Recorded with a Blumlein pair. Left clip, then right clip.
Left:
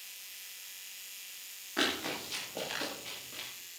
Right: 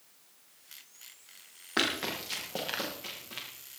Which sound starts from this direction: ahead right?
Running footsteps, at 1.8 s.